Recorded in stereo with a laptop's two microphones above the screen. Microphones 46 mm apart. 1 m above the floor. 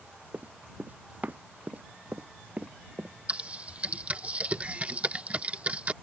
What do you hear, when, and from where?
0.3 s running footsteps: 40° right (ahead or behind); by 3.1 s 30° right (ahead or behind)
3.3 s typing on a keyboard: 30° right (ahead or behind)